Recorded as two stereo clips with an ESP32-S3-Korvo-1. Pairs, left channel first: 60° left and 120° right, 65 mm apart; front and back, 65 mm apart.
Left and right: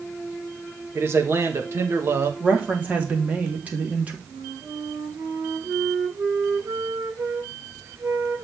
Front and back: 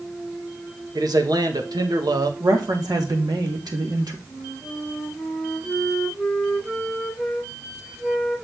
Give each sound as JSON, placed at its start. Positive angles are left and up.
{"t": 0.9, "sound": "a man speaking", "azimuth_deg": -170, "distance_m": 2.5}
{"t": 2.4, "sound": "a woman speaking", "azimuth_deg": 175, "distance_m": 4.0}
{"t": 4.3, "sound": "a flute", "azimuth_deg": -90, "distance_m": 4.5}